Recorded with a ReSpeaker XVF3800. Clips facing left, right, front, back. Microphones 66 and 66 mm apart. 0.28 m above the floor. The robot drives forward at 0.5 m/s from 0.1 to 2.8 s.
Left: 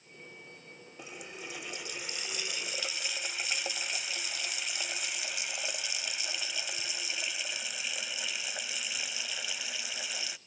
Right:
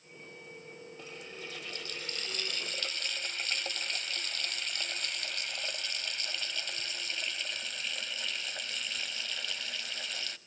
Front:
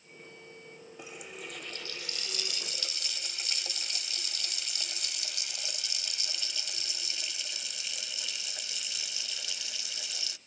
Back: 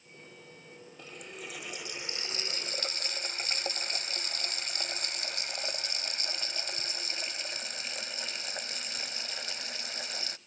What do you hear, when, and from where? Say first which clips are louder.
1.0 s a running tap: left 3 dB, even; 45° left, 0.8 m; by 10.4 s 165° left, 1.1 m